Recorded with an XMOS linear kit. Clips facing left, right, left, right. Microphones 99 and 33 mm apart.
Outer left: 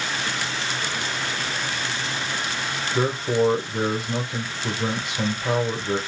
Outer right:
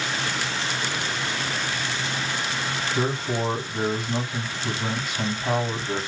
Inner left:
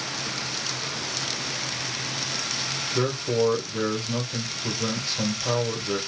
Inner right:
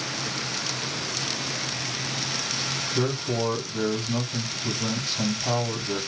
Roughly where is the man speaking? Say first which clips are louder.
Outer left 6 dB, inner left 3 dB; left.